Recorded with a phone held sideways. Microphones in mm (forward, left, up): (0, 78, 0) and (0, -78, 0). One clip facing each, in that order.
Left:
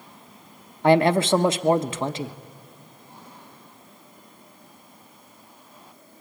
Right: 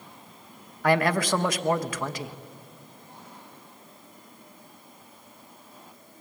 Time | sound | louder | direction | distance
0.8 | a man speaking | left 6 dB | 25° left (ahead or behind) | 0.9 m